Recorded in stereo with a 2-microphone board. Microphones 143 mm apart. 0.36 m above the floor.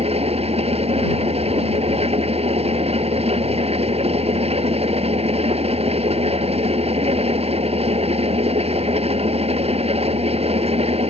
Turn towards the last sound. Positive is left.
turn(degrees=-45)  # may be behind; listen again after turning